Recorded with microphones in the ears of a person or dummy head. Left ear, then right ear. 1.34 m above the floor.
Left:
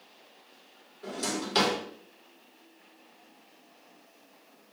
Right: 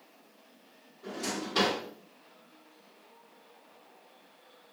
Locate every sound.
1.0 s a drawer: 55° left (ahead or behind), 1.4 m